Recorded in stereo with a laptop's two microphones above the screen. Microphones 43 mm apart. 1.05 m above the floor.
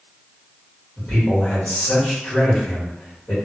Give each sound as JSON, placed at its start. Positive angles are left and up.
{"t": 1.0, "sound": "a man speaking", "side_deg": 35, "distance_m": 1.3}